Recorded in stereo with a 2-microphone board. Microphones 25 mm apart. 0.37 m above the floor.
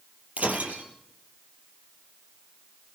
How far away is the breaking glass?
About 4 m.